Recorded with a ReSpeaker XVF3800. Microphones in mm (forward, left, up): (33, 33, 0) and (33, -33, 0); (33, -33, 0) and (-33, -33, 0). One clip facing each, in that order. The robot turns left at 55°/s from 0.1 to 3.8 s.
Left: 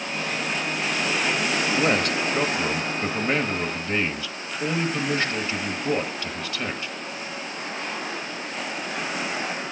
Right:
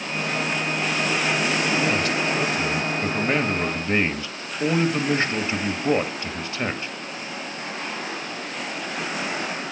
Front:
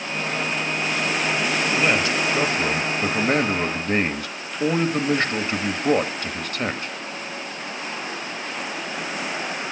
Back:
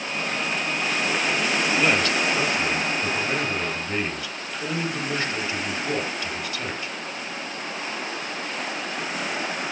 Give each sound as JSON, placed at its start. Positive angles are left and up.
{"t": 1.8, "sound": "a man speaking", "azimuth_deg": 80, "distance_m": 1.6}